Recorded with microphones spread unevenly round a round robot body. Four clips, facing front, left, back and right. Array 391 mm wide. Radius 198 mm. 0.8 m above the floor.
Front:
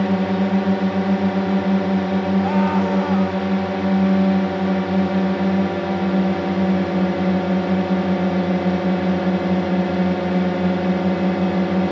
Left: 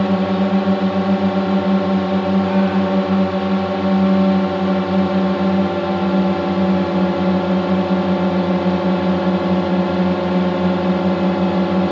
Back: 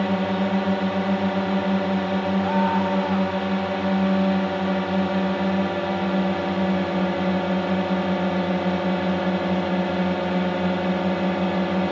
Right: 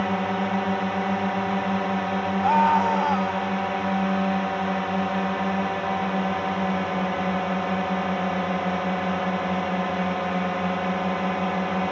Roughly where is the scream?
Ahead.